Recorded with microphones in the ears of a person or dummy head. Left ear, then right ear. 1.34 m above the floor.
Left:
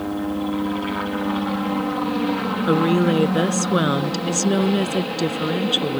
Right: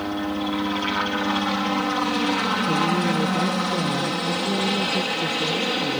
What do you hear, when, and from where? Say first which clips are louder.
0.0 s a helicopter: left 1 dB; 60° right (ahead or behind)
2.7 s a woman speaking: left 3 dB; 65° left (ahead or behind)